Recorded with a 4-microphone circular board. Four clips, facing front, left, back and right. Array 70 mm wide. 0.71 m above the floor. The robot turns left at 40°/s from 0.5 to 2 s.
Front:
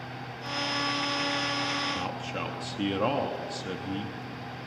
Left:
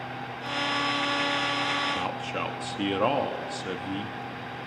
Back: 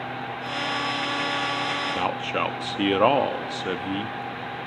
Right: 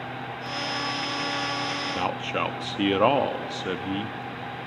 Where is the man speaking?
150° right, 1.0 m; by 4.2 s 155° right, 1.0 m.